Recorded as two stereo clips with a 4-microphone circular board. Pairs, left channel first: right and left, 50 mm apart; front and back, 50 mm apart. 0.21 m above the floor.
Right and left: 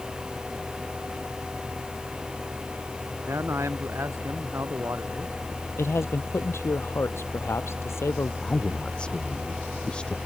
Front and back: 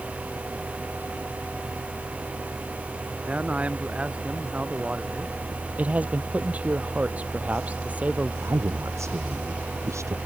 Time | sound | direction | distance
3.3 | a man speaking | 115° left | ?
5.8 | a man speaking | 120° right | ?
8.4 | a woman speaking | 160° right | ?